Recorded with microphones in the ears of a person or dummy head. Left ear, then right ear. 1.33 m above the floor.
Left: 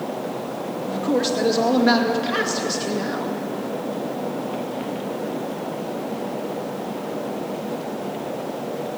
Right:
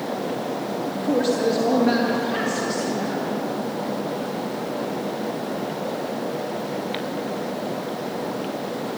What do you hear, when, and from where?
0.9 s a man speaking: 35° left (ahead or behind), 2.5 m